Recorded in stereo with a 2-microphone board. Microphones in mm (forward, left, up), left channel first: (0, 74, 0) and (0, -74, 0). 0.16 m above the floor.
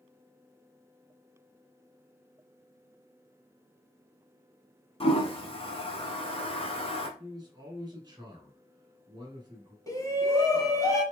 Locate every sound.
5.0 s a toilet flushing: 40° left (ahead or behind), 1.1 m
7.2 s a man speaking: 25° right (ahead or behind), 1.6 m
9.9 s a shout: 25° left (ahead or behind), 1.3 m